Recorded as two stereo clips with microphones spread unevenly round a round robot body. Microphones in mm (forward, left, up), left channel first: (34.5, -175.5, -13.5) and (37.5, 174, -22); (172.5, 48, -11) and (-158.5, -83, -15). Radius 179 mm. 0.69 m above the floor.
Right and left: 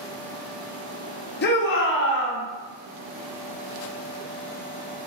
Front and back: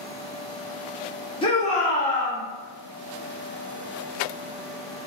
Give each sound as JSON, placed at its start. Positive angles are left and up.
{"t": 1.4, "sound": "a shout", "azimuth_deg": -45, "distance_m": 0.7}